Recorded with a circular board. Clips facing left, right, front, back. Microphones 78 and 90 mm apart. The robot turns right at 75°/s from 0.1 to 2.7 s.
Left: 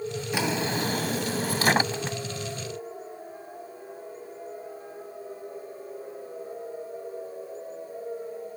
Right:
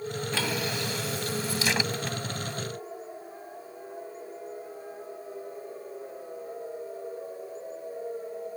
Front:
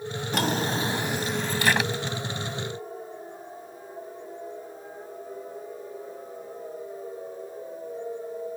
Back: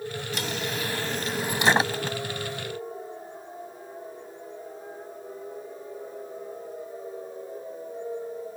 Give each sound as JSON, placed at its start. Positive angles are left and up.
{"t": 0.3, "sound": "a drawer", "azimuth_deg": 15}